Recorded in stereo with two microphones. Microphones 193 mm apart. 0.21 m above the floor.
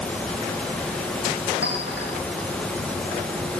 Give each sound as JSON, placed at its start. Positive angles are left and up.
{"t": 1.6, "sound": "a clink", "side_deg": 85, "distance_m": 6.5}